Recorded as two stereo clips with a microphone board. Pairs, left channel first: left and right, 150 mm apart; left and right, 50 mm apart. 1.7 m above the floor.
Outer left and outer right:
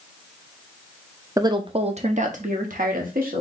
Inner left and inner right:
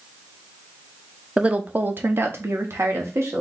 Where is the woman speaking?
20° right (ahead or behind), 0.6 m; by 3.4 s 70° right (ahead or behind), 1.5 m.